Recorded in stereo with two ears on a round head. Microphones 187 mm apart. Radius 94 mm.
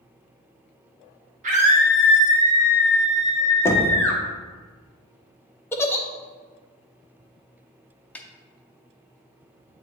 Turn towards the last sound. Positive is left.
turn(degrees=10)  # may be behind; listen again after turning